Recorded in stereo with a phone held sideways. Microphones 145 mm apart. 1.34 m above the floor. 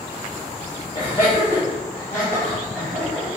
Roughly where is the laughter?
Left.